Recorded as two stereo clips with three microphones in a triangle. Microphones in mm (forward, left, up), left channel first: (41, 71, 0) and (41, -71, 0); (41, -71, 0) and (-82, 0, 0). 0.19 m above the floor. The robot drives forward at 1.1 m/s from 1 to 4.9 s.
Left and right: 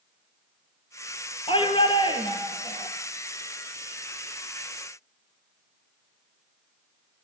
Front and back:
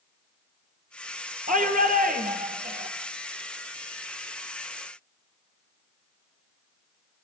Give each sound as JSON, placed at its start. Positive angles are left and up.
{"t": 1.5, "sound": "a shout", "azimuth_deg": 140, "distance_m": 3.5}